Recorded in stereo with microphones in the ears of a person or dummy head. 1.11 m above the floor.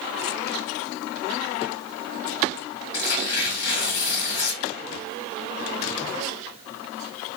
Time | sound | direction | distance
2.9 | tearing paper | 55° left (ahead or behind) | 1.5 m